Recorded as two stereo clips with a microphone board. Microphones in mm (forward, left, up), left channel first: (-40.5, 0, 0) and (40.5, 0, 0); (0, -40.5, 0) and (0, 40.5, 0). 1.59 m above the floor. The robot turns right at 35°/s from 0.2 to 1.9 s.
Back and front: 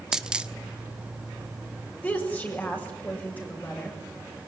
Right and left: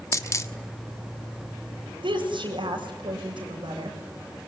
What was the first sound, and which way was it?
A dropped coin, 80° right.